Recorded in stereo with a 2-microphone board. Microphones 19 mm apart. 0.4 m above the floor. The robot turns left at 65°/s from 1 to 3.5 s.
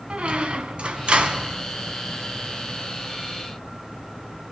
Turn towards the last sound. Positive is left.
turn(degrees=100)